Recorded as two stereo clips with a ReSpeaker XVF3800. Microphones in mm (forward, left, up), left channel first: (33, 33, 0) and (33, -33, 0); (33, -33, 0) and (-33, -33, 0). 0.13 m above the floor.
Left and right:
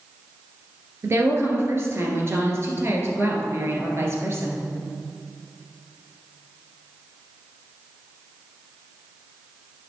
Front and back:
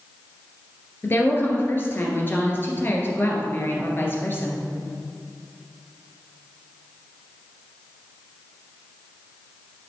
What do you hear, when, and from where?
1.0 s a woman speaking: 50° right, 2.5 m